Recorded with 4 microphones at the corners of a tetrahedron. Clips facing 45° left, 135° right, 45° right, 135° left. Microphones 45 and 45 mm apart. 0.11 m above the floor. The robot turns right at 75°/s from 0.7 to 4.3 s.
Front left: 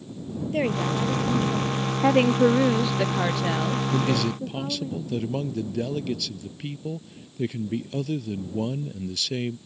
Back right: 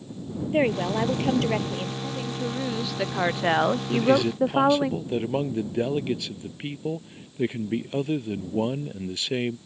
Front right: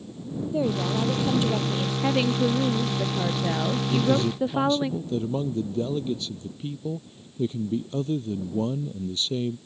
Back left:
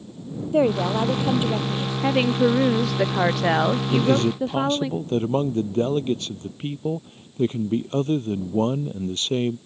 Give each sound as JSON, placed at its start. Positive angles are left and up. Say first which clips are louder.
{"t": 0.5, "sound": "a woman speaking", "louder": "back right 2 dB, back left 6 dB", "azimuth_deg": 155}
{"t": 2.0, "sound": "a woman speaking", "louder": "front left 12 dB, back left 4 dB", "azimuth_deg": 55}
{"t": 3.9, "sound": "a man speaking", "louder": "back right 5 dB, back left 1 dB", "azimuth_deg": 135}